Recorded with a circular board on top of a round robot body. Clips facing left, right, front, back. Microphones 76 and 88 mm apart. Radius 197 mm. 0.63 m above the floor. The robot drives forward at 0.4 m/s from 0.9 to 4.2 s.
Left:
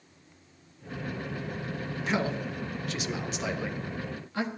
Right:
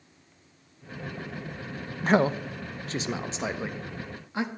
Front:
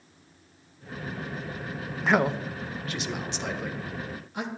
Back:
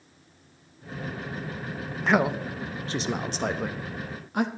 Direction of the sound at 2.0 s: 85° right.